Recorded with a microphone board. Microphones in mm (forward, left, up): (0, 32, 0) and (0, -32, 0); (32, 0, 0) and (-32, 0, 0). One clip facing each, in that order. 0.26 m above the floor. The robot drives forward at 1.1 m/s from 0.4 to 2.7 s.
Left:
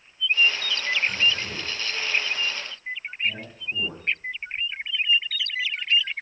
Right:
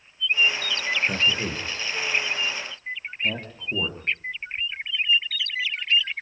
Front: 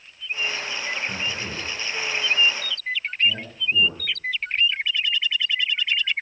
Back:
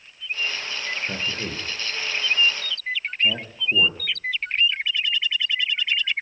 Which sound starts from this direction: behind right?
A man speaking, at 1.1 s.